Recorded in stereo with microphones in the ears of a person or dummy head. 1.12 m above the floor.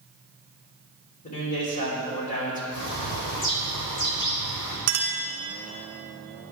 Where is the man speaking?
40° left (ahead or behind), 3.5 m.